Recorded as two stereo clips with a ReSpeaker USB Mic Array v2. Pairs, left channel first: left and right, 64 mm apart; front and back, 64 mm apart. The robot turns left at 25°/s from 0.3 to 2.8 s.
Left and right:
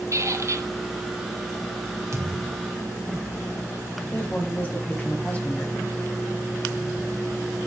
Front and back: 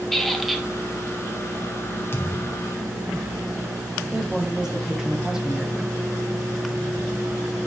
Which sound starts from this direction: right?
A squeak, at 0.1 s.